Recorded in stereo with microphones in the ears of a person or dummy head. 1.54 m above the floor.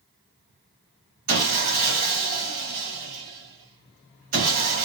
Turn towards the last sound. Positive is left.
turn(degrees=-45)  # may be behind; listen again after turning